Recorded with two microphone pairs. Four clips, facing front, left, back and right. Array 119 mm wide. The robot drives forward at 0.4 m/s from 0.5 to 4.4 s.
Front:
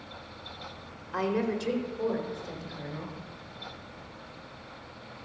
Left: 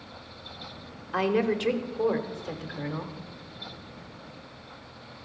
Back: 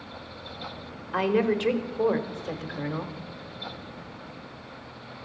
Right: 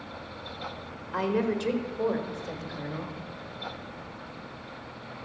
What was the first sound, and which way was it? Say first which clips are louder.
A woman speaking: left 2 dB, back 5 dB; 160° left.